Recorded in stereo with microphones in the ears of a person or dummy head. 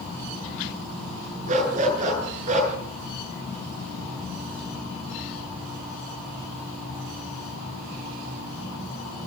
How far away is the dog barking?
About 10 m.